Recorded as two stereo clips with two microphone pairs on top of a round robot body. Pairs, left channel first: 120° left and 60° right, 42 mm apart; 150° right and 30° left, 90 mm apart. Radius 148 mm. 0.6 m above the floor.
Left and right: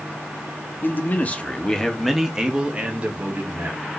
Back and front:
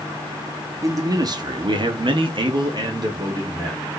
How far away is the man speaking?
About 1.2 m.